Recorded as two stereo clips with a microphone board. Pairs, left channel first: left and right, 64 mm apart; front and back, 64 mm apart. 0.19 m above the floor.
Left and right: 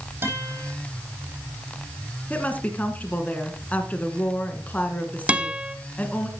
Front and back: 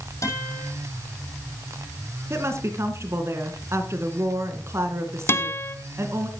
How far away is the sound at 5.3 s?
About 1.0 m.